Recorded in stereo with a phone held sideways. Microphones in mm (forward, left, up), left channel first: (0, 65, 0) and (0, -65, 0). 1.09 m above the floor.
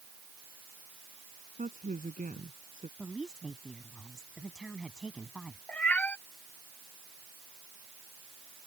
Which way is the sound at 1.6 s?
85° right.